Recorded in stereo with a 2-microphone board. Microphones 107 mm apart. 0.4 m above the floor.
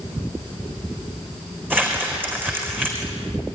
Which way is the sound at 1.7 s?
15° right (ahead or behind).